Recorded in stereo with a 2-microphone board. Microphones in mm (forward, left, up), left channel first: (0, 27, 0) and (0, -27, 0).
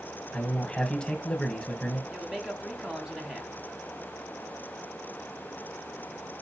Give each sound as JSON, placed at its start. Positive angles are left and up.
{"t": 0.3, "sound": "a man speaking", "side_deg": 15, "distance_m": 1.0}
{"t": 2.1, "sound": "a man speaking", "side_deg": -10, "distance_m": 1.3}